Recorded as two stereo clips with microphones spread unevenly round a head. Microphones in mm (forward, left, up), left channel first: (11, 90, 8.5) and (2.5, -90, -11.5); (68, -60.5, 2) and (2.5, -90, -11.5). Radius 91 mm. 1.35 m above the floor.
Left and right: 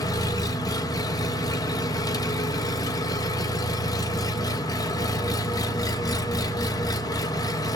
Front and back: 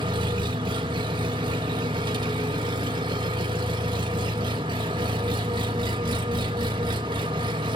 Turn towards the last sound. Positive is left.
turn(degrees=155)